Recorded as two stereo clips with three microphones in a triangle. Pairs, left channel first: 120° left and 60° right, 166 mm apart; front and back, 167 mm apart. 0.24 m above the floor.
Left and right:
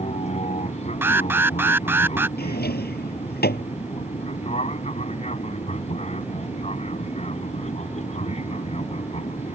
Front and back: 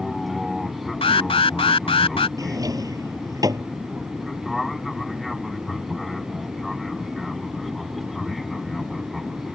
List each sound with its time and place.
0.0 s an aircraft: 90° left
1.0 s an alarm: 5° left
2.4 s a drawer: 110° left